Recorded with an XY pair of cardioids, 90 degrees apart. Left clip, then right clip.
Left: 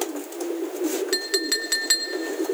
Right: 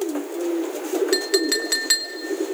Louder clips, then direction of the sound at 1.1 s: Right 5 dB; 15° right.